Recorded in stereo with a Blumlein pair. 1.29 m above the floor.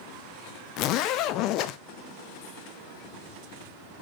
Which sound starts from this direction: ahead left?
A zipper, at 0.8 s.